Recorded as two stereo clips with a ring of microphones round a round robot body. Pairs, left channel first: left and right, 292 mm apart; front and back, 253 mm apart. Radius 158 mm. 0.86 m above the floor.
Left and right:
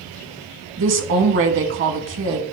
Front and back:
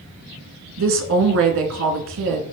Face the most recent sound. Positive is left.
turn(degrees=-140)